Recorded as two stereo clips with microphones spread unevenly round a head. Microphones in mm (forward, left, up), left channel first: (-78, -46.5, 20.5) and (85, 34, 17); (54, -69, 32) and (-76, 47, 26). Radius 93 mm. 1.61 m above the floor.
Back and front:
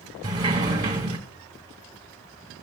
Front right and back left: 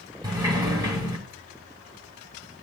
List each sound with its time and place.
0.2 s a sliding door: 80° left, 1.5 m